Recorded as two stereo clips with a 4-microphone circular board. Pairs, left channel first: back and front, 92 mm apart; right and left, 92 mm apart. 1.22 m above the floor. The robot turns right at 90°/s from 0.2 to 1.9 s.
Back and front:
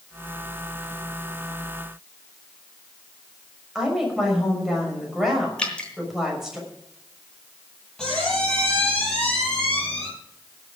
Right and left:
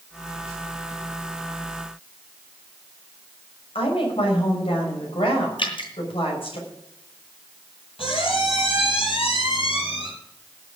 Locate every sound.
3.8 s a woman speaking: 85° right, 6 m
5.6 s dripping: 105° right, 3 m
8.0 s a squeak: 95° right, 6 m